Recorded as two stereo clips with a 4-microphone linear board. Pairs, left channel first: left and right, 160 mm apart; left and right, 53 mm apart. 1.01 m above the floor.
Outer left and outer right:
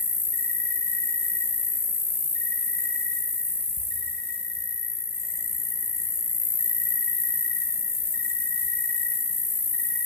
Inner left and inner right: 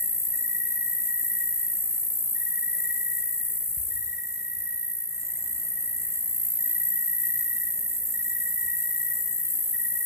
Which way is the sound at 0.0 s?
70° right (ahead or behind).